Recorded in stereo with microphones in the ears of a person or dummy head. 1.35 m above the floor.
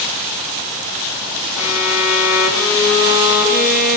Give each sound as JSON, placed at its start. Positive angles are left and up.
{"t": 1.6, "sound": "a violin", "side_deg": 75, "distance_m": 4.5}